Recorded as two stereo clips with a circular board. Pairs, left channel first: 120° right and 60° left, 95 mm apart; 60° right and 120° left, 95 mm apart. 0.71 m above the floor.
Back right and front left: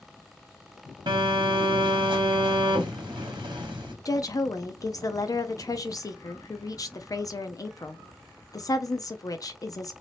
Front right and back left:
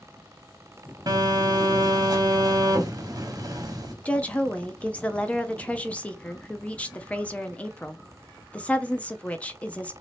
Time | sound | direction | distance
1.1 | a phone buzzing | 80° left | 1.1 m
4.0 | a woman speaking | 125° right | 0.5 m